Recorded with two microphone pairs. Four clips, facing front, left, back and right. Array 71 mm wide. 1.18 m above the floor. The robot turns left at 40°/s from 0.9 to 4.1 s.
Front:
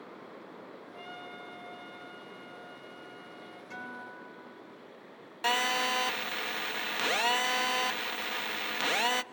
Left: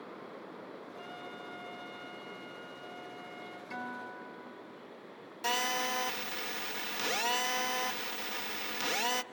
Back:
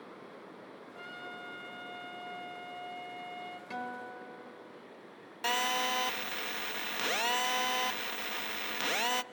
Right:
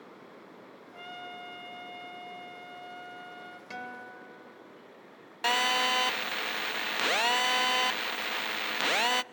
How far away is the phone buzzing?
About 0.6 m.